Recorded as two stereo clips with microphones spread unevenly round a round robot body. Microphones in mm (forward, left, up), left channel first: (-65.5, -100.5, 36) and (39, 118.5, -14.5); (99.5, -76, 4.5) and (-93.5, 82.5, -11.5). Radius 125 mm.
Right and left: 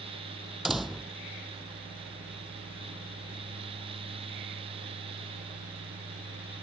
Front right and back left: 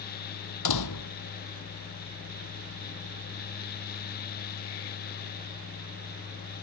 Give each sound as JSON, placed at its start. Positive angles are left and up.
{"t": 0.7, "sound": "a door slam", "azimuth_deg": -25}